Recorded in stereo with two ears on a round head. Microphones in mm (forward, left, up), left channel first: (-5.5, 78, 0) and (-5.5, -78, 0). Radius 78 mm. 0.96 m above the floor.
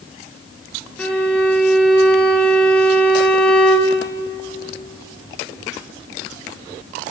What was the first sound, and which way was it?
A violin, 5° left (ahead or behind).